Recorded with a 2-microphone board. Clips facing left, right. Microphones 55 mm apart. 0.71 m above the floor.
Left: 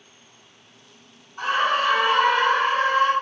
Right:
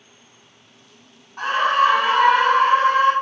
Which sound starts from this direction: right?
A scream, at 1.4 s.